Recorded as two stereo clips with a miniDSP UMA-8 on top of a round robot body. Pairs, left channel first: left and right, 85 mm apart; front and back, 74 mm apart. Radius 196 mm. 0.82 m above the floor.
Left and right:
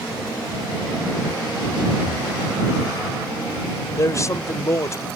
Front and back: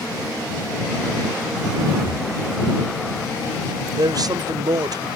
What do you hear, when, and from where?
2.0 s breathing: 165° right
3.9 s a man speaking: 145° left